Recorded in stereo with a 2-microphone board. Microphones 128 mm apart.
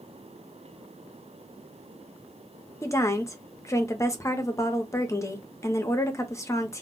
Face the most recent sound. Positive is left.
turn(degrees=25)  # may be behind; listen again after turning